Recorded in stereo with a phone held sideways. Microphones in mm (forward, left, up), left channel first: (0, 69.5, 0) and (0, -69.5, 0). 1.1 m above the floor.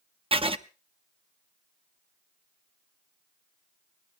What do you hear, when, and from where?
0.3 s writing: 40° right (ahead or behind), 0.7 m